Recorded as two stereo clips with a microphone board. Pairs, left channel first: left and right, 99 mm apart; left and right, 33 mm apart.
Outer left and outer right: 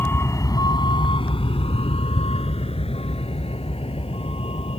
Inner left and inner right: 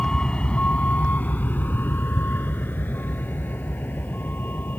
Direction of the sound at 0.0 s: 25° left (ahead or behind).